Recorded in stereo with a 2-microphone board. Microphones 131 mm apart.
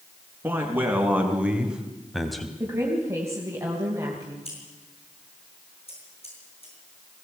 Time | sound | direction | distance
0.4 | a man speaking | 15° right (ahead or behind) | 4.5 m
2.6 | a woman speaking | 20° right (ahead or behind) | 3 m
4.5 | scissors | 50° left (ahead or behind) | 7.5 m